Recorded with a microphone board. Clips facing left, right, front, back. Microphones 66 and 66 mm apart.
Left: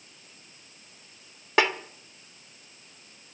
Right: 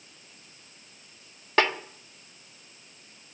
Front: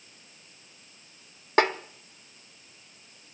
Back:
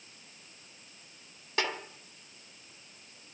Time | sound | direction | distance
1.6 | a snare drum | 10° left | 1.4 m